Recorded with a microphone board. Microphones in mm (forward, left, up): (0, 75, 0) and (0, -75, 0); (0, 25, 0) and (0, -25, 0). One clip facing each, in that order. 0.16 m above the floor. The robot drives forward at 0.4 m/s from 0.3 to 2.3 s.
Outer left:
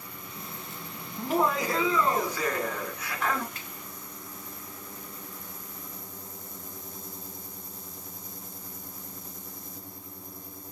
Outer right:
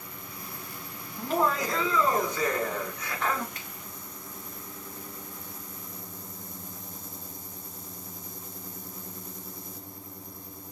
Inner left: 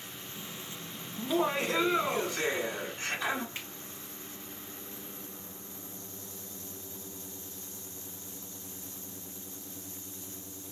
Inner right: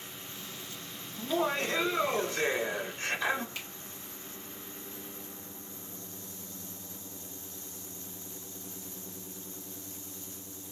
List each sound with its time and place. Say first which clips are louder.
1.2 s laughter: outer left 1 dB, inner left 1 dB; 10° left (ahead or behind), 1.1 m
3.5 s a finger snap: even, even; 30° left (ahead or behind), 2.5 m